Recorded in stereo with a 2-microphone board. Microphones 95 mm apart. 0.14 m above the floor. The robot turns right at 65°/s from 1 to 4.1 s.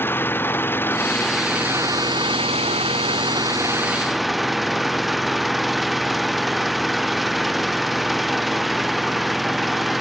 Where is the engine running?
155° left; by 10.0 s straight ahead.